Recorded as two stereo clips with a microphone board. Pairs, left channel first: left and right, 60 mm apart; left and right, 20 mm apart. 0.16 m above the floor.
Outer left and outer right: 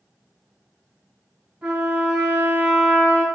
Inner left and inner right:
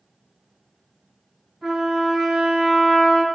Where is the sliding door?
No sliding door in this recording.